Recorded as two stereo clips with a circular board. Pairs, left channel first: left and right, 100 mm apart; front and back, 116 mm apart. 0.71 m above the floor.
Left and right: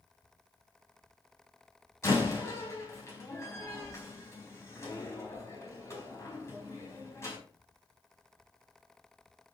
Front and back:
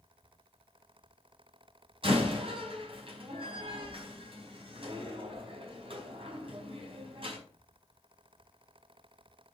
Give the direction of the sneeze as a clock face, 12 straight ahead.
I don't hear a sneeze.